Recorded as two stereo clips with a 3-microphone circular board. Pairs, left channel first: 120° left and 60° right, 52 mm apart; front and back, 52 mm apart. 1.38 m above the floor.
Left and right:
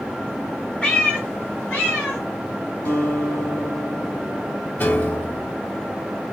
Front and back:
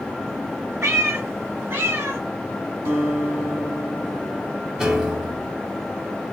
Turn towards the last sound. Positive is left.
turn(degrees=105)